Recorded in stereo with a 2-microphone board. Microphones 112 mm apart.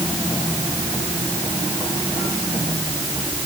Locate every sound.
Only background noise.